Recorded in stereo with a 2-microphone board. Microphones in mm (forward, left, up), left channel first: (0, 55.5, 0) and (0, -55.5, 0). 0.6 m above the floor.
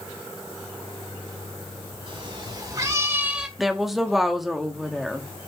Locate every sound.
2.1 s a cat meowing: 55° right (ahead or behind), 3 m; by 3.5 s 5° right (ahead or behind), 1.8 m
3.6 s a woman speaking: centre (ahead or behind), 1.2 m